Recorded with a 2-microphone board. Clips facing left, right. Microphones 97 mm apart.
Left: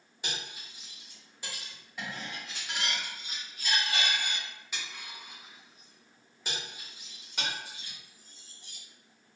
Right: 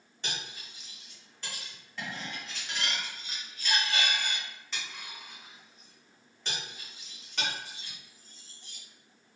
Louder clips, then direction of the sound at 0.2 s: Even; 10° left (ahead or behind).